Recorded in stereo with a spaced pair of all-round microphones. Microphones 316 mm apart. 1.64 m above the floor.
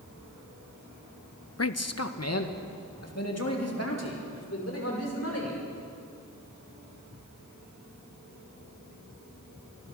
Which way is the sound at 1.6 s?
50° left (ahead or behind).